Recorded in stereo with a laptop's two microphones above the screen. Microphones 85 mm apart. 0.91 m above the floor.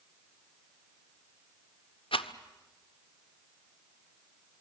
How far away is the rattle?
About 1.1 m.